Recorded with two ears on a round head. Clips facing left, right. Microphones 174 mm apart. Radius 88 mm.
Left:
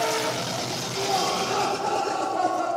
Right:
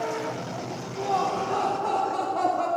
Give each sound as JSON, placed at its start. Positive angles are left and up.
{"t": 1.0, "sound": "laughter", "side_deg": 20, "distance_m": 3.0}